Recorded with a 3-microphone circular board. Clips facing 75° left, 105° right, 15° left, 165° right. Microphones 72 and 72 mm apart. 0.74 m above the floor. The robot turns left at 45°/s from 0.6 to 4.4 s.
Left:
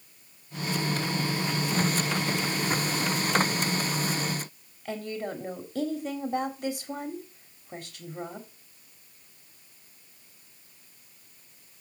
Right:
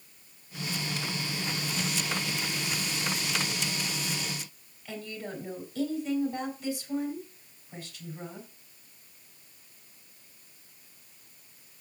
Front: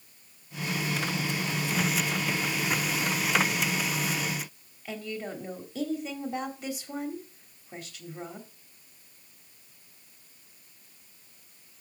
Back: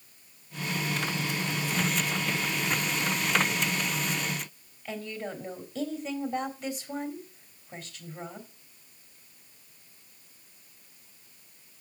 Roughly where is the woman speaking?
Left.